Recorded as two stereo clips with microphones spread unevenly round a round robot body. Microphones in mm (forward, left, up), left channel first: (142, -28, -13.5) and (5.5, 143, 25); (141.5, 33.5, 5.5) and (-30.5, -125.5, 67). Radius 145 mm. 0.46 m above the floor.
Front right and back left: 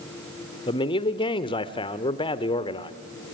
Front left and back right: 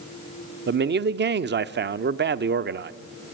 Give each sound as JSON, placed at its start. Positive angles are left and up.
{"t": 0.7, "sound": "a man speaking", "azimuth_deg": -95, "distance_m": 1.0}